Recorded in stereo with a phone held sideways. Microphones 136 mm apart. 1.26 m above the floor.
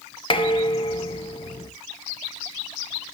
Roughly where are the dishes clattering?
Left.